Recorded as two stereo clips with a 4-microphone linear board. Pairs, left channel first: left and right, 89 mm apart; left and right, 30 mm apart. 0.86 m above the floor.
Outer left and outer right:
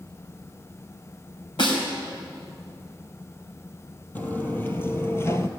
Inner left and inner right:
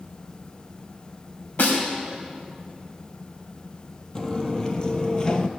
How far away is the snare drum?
About 3 m.